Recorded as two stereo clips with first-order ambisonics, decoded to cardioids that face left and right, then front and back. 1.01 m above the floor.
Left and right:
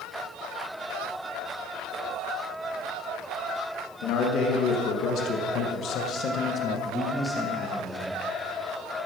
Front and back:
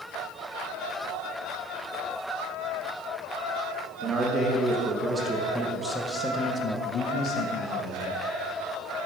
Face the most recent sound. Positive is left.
turn(degrees=-20)